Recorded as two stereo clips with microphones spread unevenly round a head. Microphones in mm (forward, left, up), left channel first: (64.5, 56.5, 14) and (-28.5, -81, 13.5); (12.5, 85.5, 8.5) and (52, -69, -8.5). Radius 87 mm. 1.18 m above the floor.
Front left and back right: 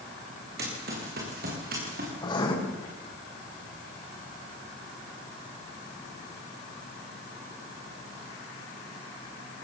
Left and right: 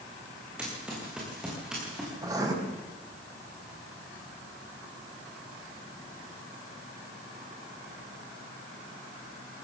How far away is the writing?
About 5 m.